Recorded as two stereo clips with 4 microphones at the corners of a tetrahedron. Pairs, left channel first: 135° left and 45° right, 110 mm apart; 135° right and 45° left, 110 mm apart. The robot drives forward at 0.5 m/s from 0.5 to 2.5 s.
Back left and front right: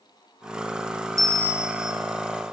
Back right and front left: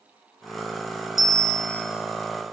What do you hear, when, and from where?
1.2 s a bell: 90° right, 0.6 m; by 1.9 s 130° right, 0.7 m